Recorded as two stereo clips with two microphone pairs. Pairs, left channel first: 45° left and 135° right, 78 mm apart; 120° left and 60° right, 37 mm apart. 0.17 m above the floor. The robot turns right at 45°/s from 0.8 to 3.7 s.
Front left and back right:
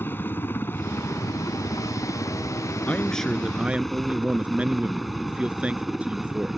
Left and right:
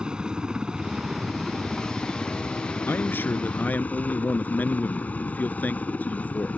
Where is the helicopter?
5° right; by 6.6 s 140° left.